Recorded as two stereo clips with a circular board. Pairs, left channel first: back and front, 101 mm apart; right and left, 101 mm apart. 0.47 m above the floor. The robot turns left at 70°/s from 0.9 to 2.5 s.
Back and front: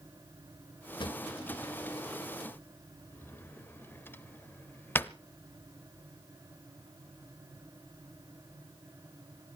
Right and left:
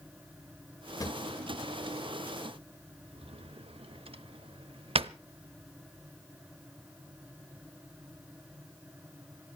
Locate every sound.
1.0 s a drawer: 145° right, 0.6 m; by 5.1 s 110° left, 0.6 m